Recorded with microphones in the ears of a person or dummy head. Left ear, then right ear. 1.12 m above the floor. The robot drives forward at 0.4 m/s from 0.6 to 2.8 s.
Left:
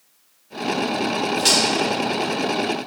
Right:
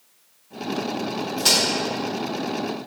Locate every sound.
1.4 s a crack: 15° left (ahead or behind), 1.1 m